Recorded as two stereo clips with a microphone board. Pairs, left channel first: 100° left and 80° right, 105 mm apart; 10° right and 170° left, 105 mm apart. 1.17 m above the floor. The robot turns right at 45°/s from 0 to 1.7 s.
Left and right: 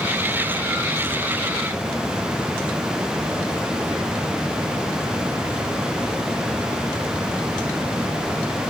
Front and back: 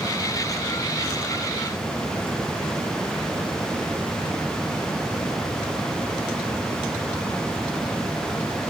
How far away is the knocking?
I don't hear knocking.